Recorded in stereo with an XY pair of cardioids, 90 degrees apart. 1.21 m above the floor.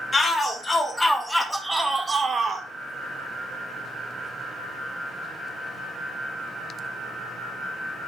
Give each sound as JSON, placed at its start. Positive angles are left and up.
{"t": 0.1, "sound": "a shout", "azimuth_deg": 35, "distance_m": 1.7}